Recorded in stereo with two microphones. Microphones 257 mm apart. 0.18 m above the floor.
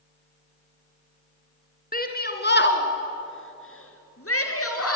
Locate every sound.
1.9 s a shout: 35° left (ahead or behind), 2.5 m; by 5.0 s 65° left (ahead or behind), 3.5 m